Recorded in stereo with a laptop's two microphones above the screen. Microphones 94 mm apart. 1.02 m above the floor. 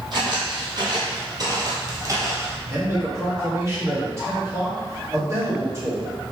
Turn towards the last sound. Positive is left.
turn(degrees=-30)  # may be behind; listen again after turning